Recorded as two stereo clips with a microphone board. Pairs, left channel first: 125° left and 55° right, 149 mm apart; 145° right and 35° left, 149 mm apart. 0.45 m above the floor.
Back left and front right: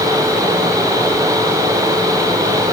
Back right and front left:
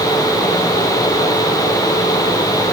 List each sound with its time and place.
Only background noise.